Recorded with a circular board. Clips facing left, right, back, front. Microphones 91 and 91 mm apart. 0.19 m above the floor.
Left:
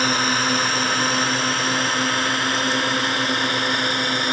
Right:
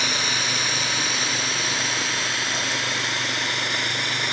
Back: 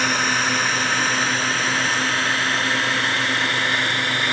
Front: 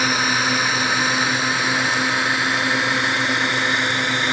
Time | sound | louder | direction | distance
0.0 | a drone | left 6 dB, front 1 dB | 80° left | ?